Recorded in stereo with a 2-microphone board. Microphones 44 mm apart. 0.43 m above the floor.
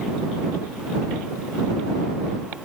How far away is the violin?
I don't hear a violin.